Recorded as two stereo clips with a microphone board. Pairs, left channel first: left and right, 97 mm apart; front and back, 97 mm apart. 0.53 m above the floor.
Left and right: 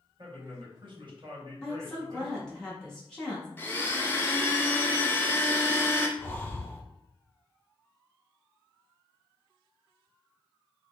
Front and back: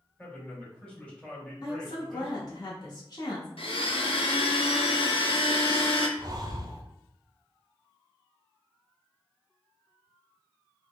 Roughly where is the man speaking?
Right.